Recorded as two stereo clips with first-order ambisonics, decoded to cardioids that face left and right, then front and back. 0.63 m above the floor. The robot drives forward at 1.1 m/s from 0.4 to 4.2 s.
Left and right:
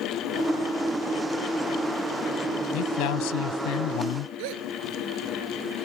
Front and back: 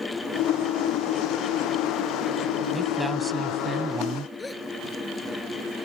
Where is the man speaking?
90° left; by 4.3 s 110° left.